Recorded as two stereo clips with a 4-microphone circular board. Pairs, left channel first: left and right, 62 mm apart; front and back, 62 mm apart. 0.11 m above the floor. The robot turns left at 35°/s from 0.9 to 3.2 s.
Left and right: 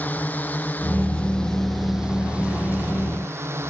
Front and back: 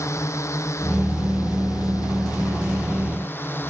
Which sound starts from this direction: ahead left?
A drone, at 0.0 s.